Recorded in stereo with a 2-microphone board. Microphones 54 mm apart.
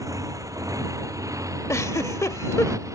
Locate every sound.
0.0 s a motorcycle: 85° right; by 2.9 s 70° right (ahead or behind)
1.7 s a giggle: 65° left (ahead or behind)